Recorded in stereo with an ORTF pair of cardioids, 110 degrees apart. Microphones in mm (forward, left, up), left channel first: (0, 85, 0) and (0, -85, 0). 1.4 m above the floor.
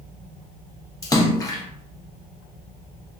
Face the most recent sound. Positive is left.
turn(degrees=20)